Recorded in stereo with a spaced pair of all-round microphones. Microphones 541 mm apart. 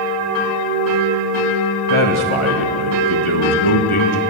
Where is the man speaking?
60° left (ahead or behind), 1.9 m.